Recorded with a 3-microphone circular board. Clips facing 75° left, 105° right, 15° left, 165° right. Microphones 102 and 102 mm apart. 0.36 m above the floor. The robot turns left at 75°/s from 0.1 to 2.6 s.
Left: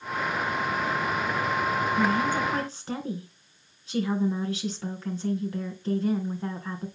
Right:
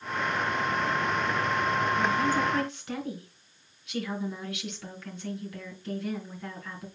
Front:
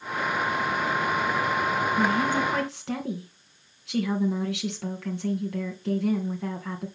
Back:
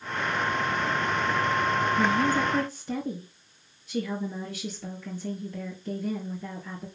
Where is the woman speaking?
65° left, 3.5 m; by 6.9 s 15° left, 3.5 m.